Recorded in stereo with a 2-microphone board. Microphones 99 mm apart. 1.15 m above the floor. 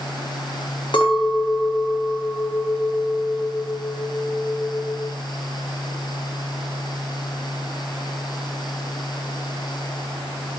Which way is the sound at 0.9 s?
55° left (ahead or behind).